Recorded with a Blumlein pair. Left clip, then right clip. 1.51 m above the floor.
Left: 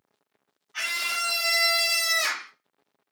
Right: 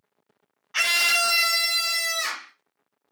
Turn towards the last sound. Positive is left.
turn(degrees=30)